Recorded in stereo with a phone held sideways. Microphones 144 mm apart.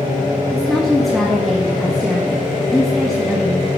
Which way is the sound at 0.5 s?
Centre (ahead or behind).